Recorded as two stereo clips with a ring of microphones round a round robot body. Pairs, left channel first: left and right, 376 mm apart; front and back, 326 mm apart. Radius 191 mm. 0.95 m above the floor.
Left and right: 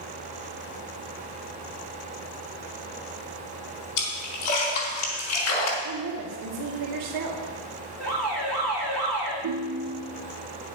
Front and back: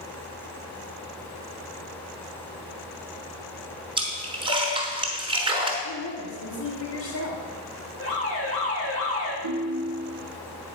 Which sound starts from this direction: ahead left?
An alarm, at 8.0 s.